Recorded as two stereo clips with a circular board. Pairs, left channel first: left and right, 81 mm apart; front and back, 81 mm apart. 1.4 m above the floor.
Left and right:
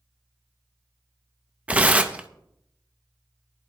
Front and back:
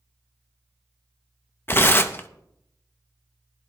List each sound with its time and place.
1.7 s tearing paper: 30° right, 0.7 m